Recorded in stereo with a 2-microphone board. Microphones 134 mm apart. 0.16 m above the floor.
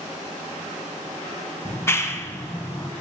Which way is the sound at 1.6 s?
20° left (ahead or behind).